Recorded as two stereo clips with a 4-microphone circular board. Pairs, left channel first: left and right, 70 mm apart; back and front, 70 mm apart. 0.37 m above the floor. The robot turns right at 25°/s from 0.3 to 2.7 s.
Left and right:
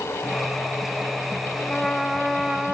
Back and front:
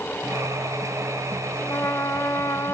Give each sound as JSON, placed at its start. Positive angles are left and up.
{"t": 1.6, "sound": "a trumpet", "azimuth_deg": 175, "distance_m": 0.7}